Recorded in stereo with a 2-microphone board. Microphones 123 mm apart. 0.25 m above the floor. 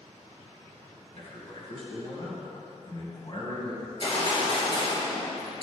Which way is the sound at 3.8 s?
45° left (ahead or behind).